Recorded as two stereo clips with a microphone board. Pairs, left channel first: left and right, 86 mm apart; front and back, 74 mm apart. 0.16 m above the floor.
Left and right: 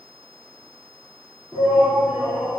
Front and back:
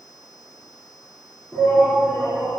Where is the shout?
65° right, 2.5 m.